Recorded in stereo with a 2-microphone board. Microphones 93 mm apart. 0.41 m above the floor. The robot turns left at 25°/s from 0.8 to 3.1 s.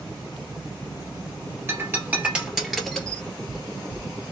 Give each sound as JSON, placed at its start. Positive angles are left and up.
{"t": 1.7, "sound": "breaking glass", "side_deg": -25, "distance_m": 1.6}
{"t": 3.0, "sound": "knocking", "side_deg": 15, "distance_m": 1.3}